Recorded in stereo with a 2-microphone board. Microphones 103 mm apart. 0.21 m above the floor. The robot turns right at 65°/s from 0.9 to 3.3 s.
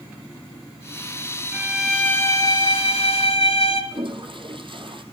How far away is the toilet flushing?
About 2.5 m.